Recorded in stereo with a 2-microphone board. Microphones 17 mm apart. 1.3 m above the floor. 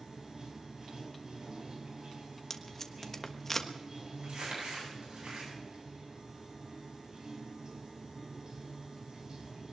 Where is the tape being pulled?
25° left (ahead or behind), 1.3 m.